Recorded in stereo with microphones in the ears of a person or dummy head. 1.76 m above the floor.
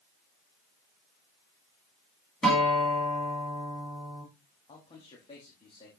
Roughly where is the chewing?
No chewing in this recording.